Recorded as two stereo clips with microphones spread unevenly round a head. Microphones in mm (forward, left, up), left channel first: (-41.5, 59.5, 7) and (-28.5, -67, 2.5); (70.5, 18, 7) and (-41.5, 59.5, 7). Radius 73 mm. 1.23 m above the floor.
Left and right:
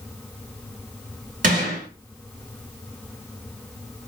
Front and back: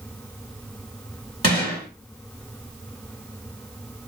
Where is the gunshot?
75° right, 2 m.